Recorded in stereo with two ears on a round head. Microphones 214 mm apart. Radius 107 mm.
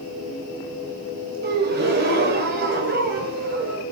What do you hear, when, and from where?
1.4 s a gasp: 40° right (ahead or behind), 2 m